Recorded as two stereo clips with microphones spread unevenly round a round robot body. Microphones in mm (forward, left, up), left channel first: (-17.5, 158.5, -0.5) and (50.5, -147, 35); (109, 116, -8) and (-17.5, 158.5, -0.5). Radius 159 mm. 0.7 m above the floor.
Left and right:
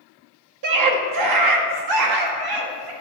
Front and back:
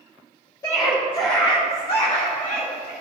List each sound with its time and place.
0.6 s a scream: 80° right, 1.1 m; by 2.9 s 70° right, 2 m